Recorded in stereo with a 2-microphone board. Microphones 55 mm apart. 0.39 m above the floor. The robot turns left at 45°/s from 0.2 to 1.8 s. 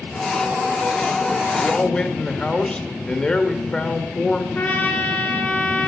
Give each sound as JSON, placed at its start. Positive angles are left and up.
{"t": 1.6, "sound": "a man speaking", "side_deg": 15, "distance_m": 1.3}
{"t": 4.5, "sound": "a trumpet", "side_deg": 30, "distance_m": 3.0}